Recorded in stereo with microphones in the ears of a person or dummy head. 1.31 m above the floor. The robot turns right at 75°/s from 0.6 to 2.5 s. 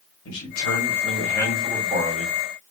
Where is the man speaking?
105° left, 1.5 m; by 2.4 s 125° right, 1.5 m.